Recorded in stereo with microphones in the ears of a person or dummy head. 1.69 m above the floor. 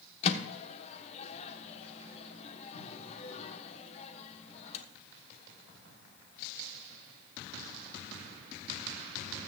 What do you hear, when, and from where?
0.2 s a microwave: 35° left (ahead or behind), 1.1 m